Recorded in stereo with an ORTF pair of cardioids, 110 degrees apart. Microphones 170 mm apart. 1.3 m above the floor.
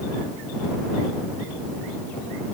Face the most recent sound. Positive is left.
No sound to turn to.